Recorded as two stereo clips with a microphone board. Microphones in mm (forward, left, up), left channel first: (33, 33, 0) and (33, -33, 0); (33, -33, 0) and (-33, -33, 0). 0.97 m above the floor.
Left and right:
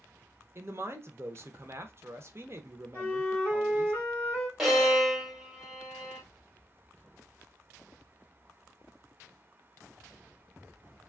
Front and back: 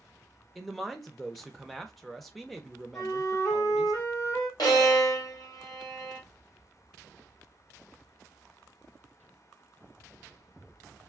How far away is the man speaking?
About 0.5 m.